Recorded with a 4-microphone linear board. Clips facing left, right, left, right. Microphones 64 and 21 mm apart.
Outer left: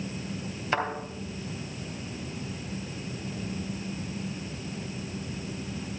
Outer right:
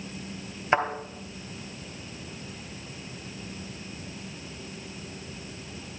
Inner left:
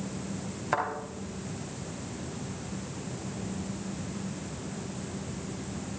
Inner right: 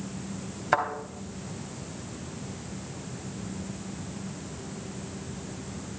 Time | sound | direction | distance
0.7 | a thud | 20° right (ahead or behind) | 2.5 m